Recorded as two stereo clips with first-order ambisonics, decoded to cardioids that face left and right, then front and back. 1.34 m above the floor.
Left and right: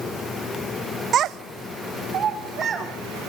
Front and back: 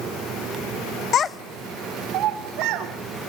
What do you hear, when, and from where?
1.1 s a child speaking: 40° right, 0.7 m; by 2.9 s 150° right, 2.5 m